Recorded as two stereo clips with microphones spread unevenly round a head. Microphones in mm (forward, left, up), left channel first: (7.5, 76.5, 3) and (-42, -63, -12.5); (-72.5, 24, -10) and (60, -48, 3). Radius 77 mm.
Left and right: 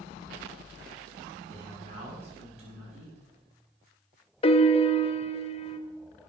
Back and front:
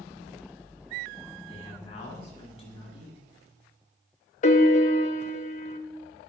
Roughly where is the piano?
Behind left.